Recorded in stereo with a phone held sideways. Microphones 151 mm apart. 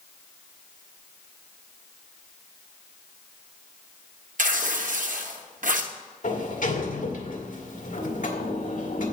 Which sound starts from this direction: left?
A sliding door, at 6.2 s.